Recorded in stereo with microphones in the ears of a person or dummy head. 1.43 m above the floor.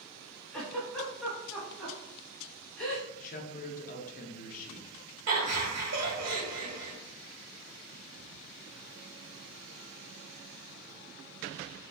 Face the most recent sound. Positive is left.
turn(degrees=-80)